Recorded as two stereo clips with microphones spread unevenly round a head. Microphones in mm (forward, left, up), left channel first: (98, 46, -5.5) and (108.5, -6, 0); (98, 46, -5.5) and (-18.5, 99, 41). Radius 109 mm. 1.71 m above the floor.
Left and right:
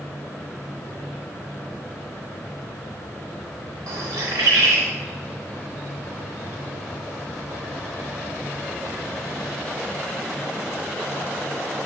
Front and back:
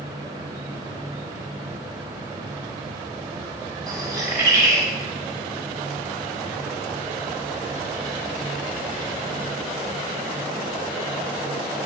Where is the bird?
115° right, 0.5 m.